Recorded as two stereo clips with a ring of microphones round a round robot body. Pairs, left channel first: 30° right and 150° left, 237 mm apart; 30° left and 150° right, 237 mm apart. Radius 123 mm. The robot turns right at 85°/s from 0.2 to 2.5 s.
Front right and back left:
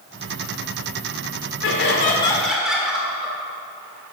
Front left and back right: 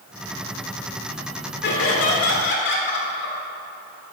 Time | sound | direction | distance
1.6 | laughter | 10° right | 1.3 m